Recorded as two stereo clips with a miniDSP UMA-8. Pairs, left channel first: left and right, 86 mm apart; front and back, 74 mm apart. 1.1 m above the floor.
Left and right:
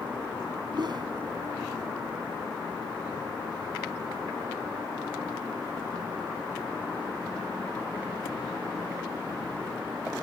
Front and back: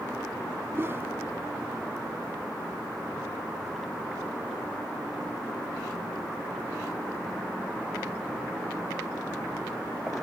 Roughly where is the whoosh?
Behind right.